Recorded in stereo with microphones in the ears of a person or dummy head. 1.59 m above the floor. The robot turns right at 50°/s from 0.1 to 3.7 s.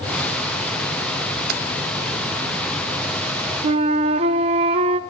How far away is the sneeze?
No sneeze in this recording.